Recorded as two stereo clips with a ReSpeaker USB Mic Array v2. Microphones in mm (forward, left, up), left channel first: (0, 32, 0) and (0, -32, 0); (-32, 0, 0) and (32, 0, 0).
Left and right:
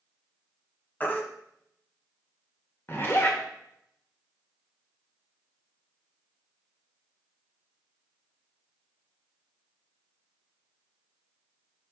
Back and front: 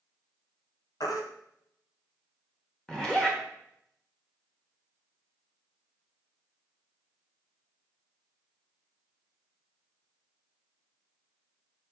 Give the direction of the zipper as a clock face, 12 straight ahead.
8 o'clock.